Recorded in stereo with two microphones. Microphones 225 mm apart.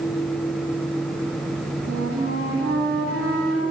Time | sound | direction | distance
1.9 | a flute | 80° right | 2.5 m